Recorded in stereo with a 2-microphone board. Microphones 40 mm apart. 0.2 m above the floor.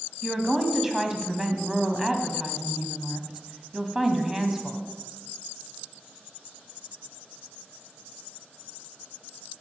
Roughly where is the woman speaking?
Centre.